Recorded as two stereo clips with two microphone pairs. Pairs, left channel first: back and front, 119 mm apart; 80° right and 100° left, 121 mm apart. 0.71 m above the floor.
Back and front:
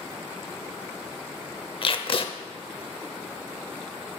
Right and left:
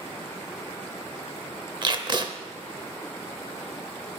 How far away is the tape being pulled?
About 0.7 m.